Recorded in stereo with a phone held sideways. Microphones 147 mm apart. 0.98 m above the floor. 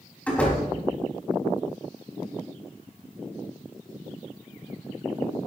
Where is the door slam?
10° left (ahead or behind), 5 m.